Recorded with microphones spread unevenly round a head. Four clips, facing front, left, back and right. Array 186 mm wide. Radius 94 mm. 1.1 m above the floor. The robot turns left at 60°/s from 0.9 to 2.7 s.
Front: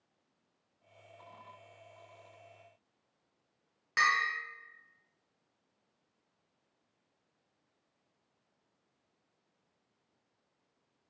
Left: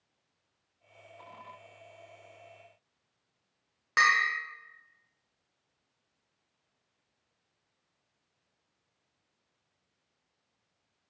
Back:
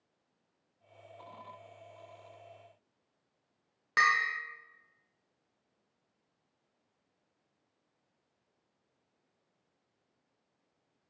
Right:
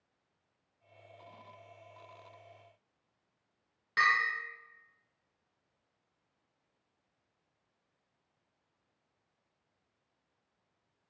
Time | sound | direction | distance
4.0 | a bell | 140° left | 0.7 m